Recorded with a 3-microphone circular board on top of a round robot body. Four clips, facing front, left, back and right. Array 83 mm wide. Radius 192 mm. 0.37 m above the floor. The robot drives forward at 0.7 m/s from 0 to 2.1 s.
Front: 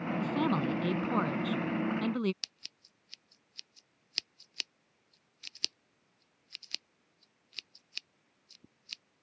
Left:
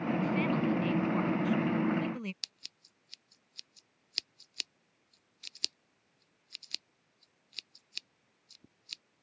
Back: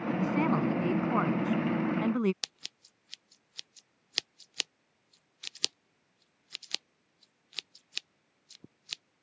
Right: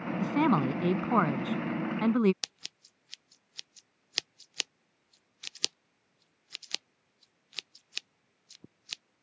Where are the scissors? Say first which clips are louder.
Right 8 dB, back 7 dB; 130° right.